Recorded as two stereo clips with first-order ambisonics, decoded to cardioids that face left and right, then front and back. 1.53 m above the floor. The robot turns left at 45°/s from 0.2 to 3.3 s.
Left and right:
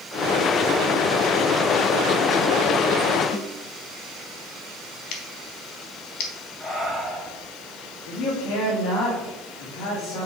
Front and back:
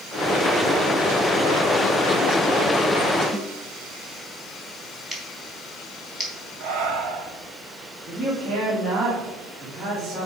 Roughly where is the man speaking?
Left.